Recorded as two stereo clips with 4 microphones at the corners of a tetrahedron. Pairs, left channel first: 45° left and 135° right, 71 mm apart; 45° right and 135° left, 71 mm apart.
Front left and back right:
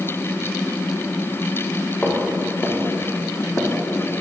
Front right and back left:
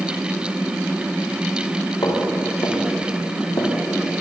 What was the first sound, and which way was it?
Footsteps, 30° right.